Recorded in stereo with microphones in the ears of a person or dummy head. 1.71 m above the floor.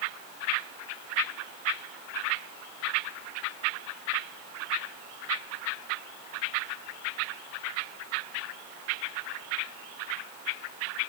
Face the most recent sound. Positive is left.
No sound to turn to.